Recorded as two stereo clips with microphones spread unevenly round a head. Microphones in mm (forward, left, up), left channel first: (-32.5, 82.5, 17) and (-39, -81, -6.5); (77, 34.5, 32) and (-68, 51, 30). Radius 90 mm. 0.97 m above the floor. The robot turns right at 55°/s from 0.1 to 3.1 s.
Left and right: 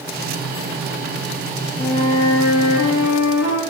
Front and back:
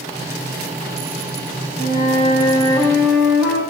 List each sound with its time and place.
1.8 s a flute: 10° left, 8 m; by 3.6 s 80° left, 8 m